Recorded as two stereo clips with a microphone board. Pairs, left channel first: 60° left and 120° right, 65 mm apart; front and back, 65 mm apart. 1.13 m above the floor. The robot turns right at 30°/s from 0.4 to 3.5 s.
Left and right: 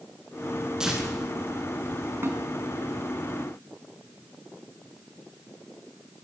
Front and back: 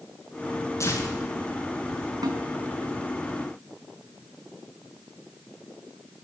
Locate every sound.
0.8 s tearing paper: 40° right, 9.5 m; by 2.1 s 5° right, 9.5 m
2.2 s a snare drum: 170° right, 4.5 m; by 2.4 s 165° right, 4.5 m